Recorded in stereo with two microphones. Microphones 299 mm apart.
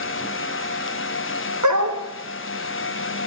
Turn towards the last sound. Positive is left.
turn(degrees=-75)  # may be behind; listen again after turning